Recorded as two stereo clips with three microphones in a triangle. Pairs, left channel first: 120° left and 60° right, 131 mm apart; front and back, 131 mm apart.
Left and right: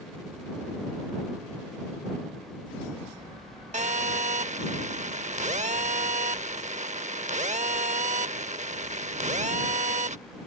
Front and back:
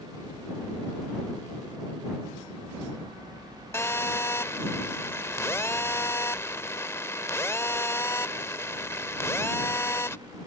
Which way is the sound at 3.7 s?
65° right.